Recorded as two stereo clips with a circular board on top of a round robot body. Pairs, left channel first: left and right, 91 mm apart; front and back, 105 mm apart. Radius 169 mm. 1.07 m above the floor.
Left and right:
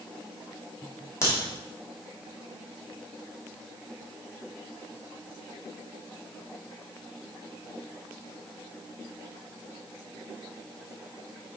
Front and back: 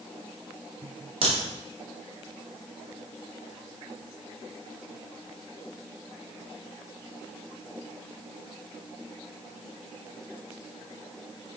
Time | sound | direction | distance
1.2 | a crack | 150° left | 2.5 m